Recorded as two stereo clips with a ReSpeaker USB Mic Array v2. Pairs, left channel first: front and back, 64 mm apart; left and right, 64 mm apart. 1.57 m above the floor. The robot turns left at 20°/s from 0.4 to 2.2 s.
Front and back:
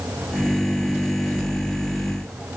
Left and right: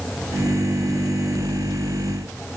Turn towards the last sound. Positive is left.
No sound to turn to.